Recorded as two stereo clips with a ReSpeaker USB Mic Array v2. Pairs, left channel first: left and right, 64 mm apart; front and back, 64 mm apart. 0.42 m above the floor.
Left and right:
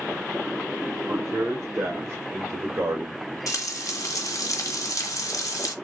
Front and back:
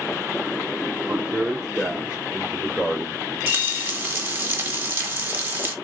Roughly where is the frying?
Behind left.